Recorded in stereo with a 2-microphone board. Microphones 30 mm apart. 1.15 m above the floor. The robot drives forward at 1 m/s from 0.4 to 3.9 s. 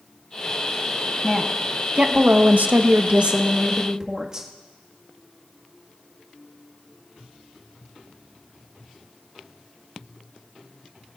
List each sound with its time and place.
1.2 s a woman speaking: 25° right (ahead or behind), 1.6 m; by 4.5 s 30° right (ahead or behind), 1.4 m